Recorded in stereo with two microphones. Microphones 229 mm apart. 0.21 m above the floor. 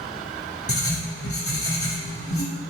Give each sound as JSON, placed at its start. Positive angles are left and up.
{"t": 0.7, "sound": "writing", "side_deg": 75, "distance_m": 0.7}